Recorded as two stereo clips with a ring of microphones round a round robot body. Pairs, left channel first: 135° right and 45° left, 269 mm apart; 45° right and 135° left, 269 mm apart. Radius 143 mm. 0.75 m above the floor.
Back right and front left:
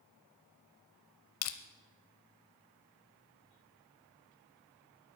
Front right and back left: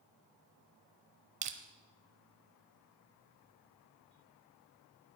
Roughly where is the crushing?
Behind.